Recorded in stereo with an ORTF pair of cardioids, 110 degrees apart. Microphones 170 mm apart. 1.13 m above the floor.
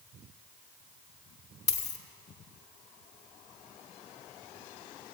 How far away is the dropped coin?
About 1.4 m.